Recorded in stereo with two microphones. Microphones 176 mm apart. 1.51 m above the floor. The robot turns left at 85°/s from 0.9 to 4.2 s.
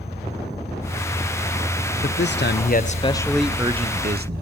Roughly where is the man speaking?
Behind left.